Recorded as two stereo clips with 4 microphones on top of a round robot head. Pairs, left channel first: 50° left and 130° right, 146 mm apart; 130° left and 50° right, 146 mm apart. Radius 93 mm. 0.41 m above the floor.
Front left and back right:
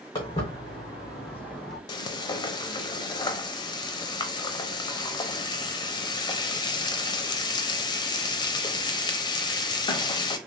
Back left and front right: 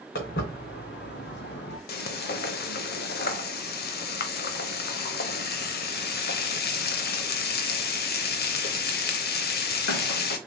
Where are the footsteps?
110° left, 1.9 m; by 1.8 s 140° left, 1.1 m.